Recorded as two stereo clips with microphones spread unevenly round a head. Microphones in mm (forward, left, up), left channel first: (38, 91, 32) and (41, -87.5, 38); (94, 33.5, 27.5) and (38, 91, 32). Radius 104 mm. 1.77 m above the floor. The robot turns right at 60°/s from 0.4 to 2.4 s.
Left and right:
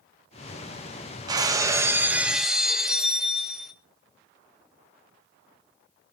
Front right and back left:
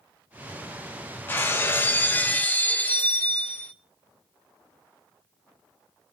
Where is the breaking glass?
80° right, 1.0 m; by 3.7 s 10° right, 1.0 m.